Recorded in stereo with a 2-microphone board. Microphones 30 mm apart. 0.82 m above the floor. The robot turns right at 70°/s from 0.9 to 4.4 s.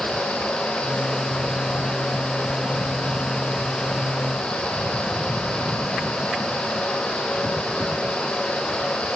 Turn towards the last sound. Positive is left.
No sound to turn to.